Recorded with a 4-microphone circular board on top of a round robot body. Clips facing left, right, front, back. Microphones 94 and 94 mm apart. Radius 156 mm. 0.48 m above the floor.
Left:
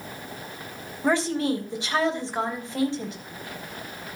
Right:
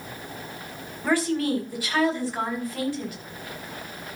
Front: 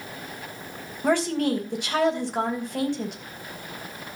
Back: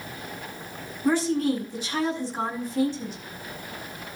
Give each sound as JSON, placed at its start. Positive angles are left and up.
{"t": 1.0, "sound": "a woman speaking", "azimuth_deg": 25, "distance_m": 4.0}